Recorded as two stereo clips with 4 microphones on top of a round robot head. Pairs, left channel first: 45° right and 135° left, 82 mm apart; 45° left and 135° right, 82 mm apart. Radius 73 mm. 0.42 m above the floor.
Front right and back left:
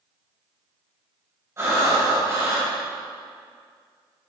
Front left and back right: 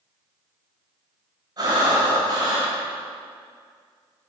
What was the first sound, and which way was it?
Breathing, 170° right.